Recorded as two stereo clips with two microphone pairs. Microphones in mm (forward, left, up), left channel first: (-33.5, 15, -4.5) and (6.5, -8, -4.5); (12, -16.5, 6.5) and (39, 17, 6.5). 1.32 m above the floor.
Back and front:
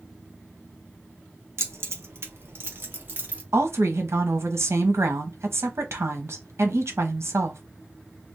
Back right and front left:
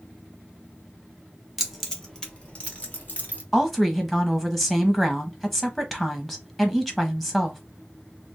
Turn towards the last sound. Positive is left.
turn(degrees=-45)